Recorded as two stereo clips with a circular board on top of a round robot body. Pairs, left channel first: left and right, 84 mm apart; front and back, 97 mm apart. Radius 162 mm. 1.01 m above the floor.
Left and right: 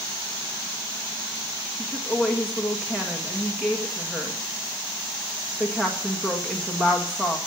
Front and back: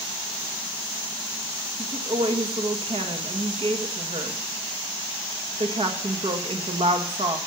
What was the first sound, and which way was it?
A woman speaking, 170° right.